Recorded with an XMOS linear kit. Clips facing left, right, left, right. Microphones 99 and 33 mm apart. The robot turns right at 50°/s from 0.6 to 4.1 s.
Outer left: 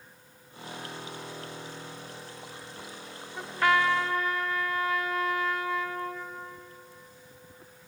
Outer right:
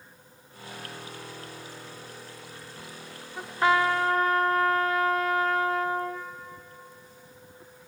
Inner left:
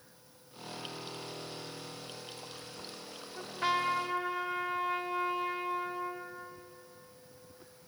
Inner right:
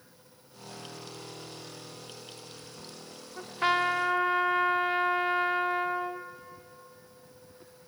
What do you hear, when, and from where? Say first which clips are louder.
3.4 s a trumpet: outer right 2 dB, inner right 5 dB; 170° right, 0.9 m; by 6.3 s 135° right, 0.9 m